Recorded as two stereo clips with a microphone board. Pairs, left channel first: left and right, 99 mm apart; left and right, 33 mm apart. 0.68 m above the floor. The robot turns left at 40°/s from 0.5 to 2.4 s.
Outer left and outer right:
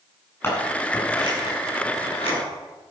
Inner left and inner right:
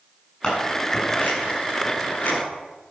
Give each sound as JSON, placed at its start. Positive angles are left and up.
{"t": 0.4, "sound": "scissors", "side_deg": 25, "distance_m": 7.5}